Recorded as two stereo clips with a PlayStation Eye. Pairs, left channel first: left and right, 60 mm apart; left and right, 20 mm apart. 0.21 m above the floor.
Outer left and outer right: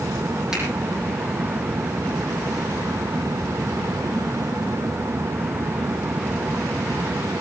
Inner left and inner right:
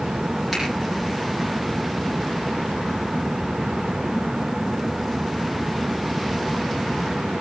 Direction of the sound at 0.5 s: 10° right (ahead or behind).